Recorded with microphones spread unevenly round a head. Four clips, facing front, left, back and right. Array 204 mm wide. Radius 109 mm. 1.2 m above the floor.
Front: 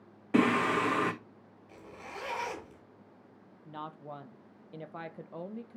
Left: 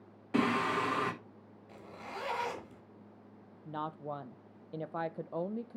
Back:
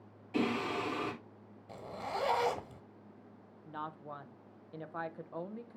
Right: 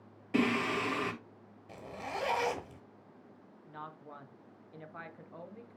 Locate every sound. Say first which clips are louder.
0.3 s singing: even, front 7 dB; 5° right, 1.4 m
1.7 s a zipper: right 5 dB, back 6 dB; 135° right, 1.8 m
3.6 s a woman speaking: left 8 dB, front 1 dB; 80° left, 0.7 m